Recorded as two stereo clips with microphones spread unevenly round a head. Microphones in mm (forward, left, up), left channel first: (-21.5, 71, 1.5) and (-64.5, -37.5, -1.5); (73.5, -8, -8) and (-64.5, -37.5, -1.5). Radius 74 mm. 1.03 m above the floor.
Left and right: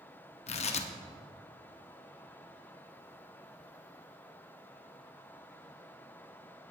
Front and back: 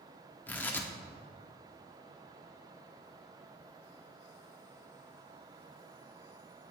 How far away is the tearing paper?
About 0.9 m.